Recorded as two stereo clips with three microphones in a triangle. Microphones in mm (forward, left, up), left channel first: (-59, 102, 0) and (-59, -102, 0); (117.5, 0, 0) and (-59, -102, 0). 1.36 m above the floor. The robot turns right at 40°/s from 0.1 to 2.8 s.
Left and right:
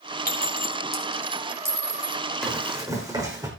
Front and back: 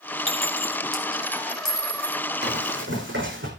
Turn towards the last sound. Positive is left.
turn(degrees=-160)